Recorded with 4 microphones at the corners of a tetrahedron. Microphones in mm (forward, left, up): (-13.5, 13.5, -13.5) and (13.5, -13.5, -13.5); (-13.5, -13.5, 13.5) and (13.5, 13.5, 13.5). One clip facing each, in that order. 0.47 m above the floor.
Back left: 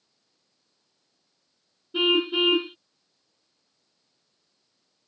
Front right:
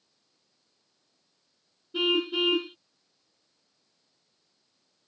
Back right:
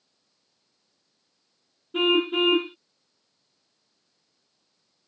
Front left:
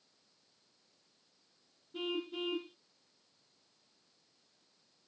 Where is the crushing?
I don't hear crushing.